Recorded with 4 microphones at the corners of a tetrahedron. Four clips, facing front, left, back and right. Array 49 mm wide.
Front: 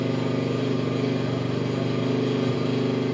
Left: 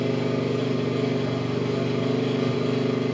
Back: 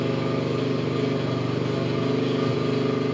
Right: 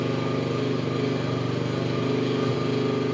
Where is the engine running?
145° right, 3 m.